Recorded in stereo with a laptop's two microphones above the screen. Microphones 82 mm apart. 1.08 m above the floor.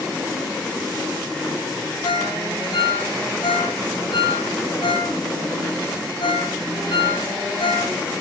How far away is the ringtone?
About 8 m.